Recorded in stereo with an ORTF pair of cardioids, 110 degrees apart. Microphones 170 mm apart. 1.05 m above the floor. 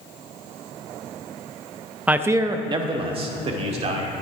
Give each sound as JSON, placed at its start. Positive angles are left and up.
{"t": 2.1, "sound": "a man speaking", "azimuth_deg": -5, "distance_m": 0.7}